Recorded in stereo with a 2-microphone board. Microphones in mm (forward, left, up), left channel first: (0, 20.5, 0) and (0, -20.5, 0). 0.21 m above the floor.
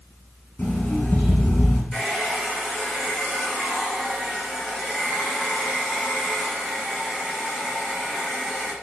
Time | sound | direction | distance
0.6 | an alarm clock | 50° left (ahead or behind) | 1.4 m
1.9 | a hair dryer | centre (ahead or behind) | 2 m